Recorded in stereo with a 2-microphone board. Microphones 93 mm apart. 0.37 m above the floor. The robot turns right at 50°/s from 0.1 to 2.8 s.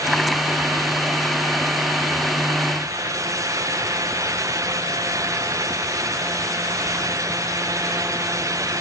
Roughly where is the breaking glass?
I don't hear breaking glass.